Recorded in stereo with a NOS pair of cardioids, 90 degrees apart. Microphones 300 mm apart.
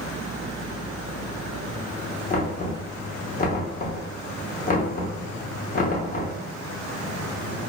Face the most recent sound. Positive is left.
turn(degrees=30)